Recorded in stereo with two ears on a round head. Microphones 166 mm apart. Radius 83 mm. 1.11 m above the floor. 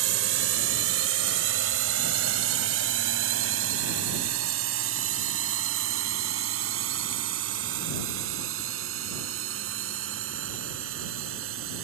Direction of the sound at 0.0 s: 80° right.